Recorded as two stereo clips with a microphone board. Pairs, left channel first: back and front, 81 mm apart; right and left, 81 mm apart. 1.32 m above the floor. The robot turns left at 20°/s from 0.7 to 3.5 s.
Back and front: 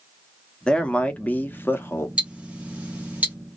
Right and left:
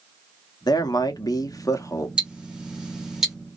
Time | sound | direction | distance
0.7 | a man speaking | 105° right | 0.5 m
2.2 | ticking | 40° left | 0.8 m